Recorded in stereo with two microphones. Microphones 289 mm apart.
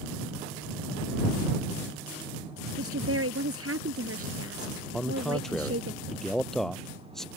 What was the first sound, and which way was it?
A woman speaking, 50° right (ahead or behind).